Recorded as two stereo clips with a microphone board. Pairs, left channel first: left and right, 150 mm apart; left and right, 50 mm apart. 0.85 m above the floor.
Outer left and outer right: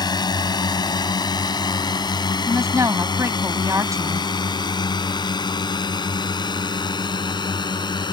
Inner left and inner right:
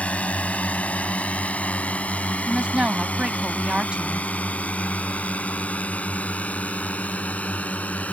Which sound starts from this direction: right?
A woman speaking, at 2.5 s.